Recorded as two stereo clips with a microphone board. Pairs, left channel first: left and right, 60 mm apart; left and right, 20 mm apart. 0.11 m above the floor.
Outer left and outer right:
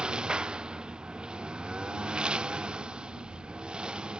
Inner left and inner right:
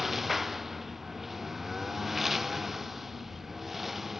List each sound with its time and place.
0.0 s a lawn mower: 15° right (ahead or behind)